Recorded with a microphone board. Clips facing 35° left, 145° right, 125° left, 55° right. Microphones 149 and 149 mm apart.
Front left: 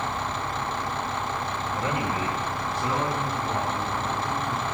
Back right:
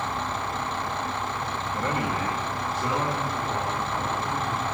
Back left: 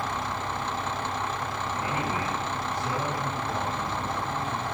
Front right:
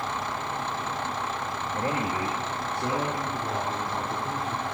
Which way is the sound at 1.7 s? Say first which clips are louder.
Back right 1 dB, front right 3 dB; 50° right.